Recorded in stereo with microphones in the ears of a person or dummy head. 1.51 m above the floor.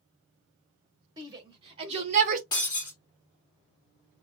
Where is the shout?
25° right (ahead or behind), 2 m; by 2.4 s 45° right (ahead or behind), 1.1 m.